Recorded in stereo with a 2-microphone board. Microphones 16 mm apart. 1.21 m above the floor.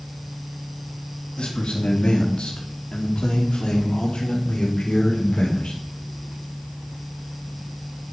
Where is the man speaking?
80° left, 2.5 m; by 5.7 s 85° left, 4.5 m.